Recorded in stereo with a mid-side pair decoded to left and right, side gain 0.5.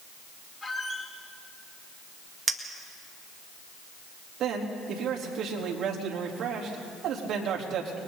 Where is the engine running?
No engine running in this recording.